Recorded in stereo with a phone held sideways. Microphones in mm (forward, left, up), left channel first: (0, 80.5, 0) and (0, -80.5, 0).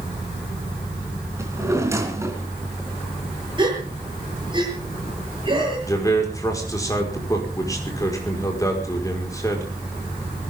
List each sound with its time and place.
1.4 s a drawer: 15° right (ahead or behind), 3.5 m
3.6 s a gasp: 30° right (ahead or behind), 8 m
5.9 s a man speaking: 20° left (ahead or behind), 5 m